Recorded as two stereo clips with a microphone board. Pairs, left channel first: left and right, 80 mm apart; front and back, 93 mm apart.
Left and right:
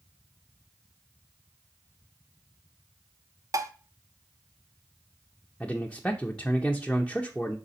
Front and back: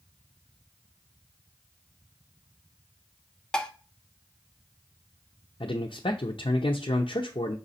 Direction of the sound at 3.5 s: 80° right.